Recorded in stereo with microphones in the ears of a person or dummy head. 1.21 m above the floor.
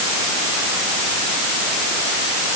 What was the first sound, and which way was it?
Only background noise.